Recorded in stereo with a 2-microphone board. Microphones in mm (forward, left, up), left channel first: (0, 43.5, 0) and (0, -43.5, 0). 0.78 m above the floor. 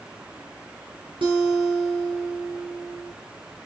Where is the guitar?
85° right, 6.5 m.